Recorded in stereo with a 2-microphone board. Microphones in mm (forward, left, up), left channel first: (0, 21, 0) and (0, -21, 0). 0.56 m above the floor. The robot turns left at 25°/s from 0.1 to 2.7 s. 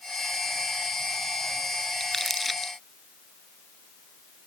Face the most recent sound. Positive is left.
turn(degrees=-5)  # may be behind; listen again after turning